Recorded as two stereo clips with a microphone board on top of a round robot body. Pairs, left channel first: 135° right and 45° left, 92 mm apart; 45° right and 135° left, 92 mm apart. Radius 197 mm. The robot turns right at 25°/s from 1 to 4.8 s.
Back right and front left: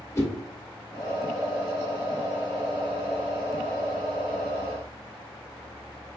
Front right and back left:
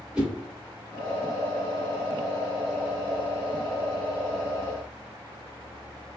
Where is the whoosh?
155° right, 1.5 m.